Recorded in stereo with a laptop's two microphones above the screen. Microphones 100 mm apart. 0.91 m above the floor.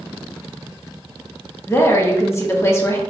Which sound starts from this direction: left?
A woman speaking, at 1.7 s.